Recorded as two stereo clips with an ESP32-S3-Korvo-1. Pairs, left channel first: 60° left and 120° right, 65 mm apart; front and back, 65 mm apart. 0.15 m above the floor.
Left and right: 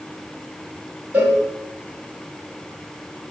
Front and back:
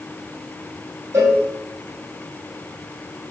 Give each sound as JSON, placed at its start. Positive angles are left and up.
{"t": 1.1, "sound": "a cowbell", "azimuth_deg": 180, "distance_m": 1.0}